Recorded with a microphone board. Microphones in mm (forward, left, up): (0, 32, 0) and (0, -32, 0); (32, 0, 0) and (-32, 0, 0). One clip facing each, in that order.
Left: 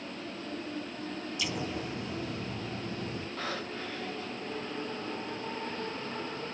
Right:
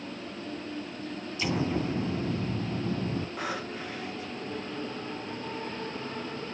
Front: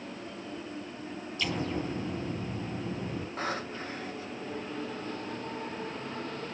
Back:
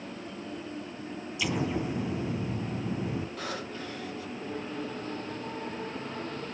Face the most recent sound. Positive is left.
turn(degrees=-25)